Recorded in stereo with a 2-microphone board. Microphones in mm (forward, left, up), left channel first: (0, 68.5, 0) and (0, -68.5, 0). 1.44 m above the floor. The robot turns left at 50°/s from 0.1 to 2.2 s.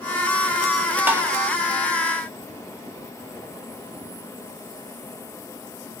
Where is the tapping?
15° right (ahead or behind), 1.0 m; by 1.2 s 20° right (ahead or behind), 1.0 m.